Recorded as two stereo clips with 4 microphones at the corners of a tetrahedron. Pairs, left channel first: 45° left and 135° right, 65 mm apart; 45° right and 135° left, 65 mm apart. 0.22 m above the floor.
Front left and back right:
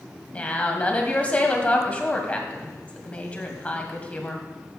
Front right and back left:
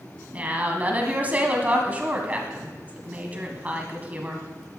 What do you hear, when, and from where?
0.3 s a woman speaking: 95° left, 1.8 m